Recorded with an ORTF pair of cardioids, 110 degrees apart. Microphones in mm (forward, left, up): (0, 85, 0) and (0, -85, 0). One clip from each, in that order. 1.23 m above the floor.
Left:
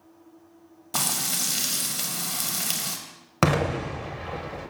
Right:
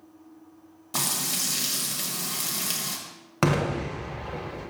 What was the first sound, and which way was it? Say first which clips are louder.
Frying: left 1 dB; 15° left.